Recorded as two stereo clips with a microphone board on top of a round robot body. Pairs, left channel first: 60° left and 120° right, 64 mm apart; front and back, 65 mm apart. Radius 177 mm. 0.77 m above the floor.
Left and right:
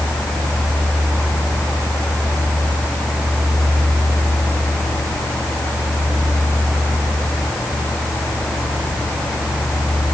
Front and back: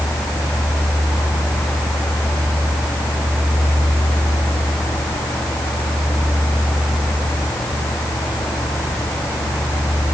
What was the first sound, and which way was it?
Only background noise.